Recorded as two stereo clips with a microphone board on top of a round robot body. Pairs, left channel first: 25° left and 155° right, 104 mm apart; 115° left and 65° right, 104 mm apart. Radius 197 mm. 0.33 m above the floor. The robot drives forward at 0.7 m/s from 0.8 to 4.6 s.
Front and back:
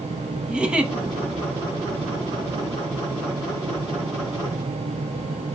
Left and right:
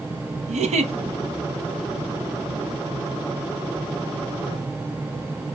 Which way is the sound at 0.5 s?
75° right.